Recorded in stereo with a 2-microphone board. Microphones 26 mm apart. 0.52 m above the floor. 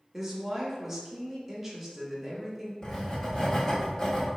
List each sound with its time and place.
0.1 s a woman speaking: 10° right (ahead or behind), 0.8 m
2.8 s writing: 30° left (ahead or behind), 1.0 m